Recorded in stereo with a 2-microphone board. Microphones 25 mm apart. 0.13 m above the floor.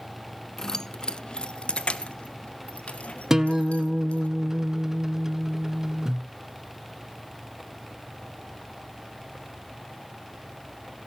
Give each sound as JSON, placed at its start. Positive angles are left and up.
{"t": 0.6, "sound": "keys jangling", "side_deg": 20, "distance_m": 0.7}
{"t": 3.3, "sound": "a guitar", "side_deg": -20, "distance_m": 0.7}